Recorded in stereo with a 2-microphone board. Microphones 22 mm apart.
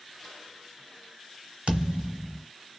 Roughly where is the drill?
No drill in this recording.